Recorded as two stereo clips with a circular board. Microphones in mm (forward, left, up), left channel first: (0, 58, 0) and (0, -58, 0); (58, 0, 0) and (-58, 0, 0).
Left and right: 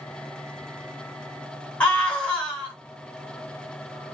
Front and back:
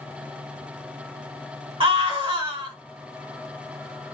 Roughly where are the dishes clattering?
No dishes clattering in this recording.